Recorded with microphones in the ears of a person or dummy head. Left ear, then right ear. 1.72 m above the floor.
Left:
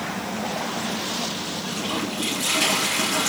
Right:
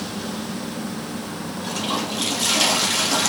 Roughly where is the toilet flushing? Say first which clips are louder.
Right 5 dB; right.